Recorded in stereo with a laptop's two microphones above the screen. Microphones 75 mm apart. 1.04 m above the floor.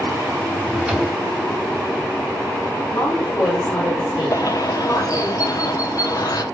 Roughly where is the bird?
Left.